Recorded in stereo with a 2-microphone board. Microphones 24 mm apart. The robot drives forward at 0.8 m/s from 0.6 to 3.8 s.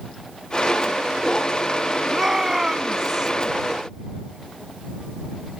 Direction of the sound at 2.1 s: 20° right (ahead or behind).